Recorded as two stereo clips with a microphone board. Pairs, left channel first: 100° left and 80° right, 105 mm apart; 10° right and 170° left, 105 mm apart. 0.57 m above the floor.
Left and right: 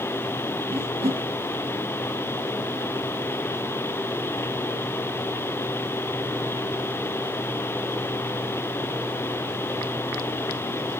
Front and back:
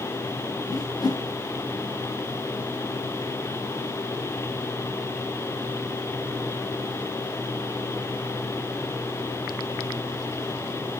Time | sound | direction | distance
0.7 | a whoosh | 65° right | 0.8 m